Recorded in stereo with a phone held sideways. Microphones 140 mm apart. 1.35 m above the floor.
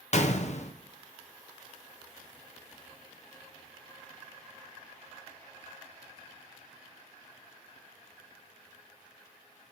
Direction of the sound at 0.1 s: 55° left (ahead or behind).